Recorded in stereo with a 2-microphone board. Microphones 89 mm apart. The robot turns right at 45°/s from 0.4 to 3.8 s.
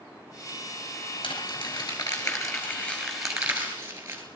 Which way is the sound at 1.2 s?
90° left.